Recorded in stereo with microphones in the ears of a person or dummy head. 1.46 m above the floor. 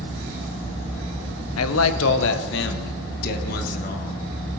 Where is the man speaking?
85° left, 1.0 m; by 4.2 s 45° left (ahead or behind), 2.5 m.